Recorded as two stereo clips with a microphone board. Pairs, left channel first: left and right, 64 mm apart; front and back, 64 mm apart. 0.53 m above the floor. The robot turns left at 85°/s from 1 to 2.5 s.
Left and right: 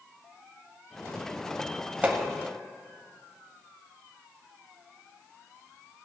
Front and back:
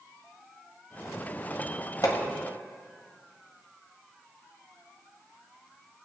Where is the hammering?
25° right, 1.5 m; by 2.2 s 40° right, 1.5 m.